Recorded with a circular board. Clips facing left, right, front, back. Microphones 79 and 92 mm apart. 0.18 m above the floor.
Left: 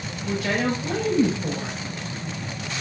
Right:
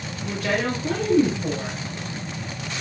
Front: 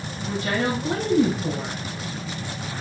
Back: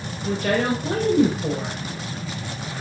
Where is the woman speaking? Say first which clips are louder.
Even, back 3 dB; 170° right, 3.5 m.